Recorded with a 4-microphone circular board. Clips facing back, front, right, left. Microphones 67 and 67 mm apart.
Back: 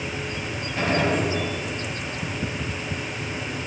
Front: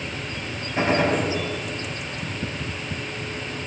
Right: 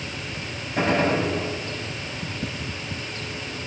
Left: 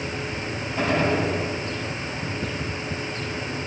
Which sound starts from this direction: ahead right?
A gunshot, at 0.8 s.